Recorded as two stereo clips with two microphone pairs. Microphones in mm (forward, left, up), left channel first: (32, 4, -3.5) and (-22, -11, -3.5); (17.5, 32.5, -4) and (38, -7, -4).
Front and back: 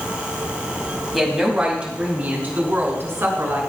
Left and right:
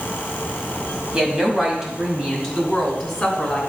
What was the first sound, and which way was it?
A woman speaking, 75° right.